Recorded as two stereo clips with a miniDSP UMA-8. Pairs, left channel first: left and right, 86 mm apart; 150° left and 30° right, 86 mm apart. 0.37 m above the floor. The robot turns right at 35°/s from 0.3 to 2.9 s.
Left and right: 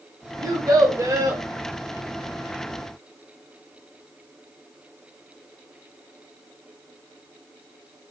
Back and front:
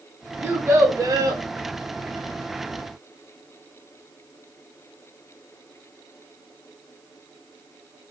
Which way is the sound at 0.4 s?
80° right.